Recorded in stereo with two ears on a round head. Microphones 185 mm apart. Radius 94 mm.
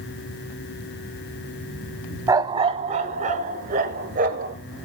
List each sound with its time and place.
2.3 s a dog barking: 15° right (ahead or behind), 0.9 m; by 4.5 s 45° right (ahead or behind), 3.5 m